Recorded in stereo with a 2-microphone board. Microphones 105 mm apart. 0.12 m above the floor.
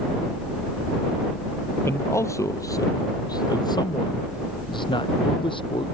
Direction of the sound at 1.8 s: 25° left (ahead or behind).